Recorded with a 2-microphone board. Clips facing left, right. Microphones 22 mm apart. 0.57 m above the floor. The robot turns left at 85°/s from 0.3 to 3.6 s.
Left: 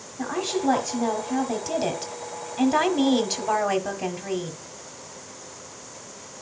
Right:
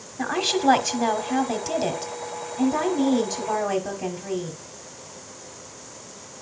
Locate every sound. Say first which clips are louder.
0.2 s a woman speaking: right 3 dB; 45° right, 1.4 m; by 4.5 s 35° left, 1.4 m